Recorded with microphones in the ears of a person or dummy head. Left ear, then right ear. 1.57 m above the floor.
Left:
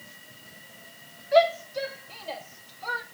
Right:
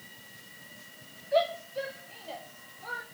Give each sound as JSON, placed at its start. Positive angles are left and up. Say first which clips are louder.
{"t": 1.3, "sound": "a shout", "louder": "left 7 dB", "side_deg": 30, "distance_m": 3.0}